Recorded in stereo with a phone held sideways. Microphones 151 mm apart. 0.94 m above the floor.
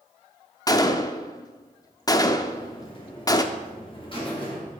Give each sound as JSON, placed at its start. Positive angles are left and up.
{"t": 0.7, "sound": "a gunshot", "side_deg": 25, "distance_m": 0.5}
{"t": 2.4, "sound": "a buzzer", "side_deg": 35, "distance_m": 2.5}